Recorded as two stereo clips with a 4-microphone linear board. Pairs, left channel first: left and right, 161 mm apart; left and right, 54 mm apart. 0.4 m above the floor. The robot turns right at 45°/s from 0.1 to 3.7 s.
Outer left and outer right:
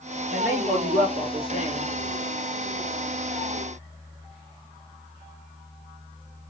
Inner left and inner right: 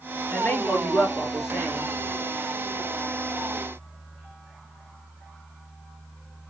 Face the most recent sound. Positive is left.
turn(degrees=-145)